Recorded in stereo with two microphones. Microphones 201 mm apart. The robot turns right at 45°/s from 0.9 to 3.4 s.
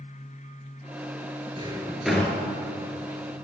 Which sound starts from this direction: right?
A drawer, at 1.6 s.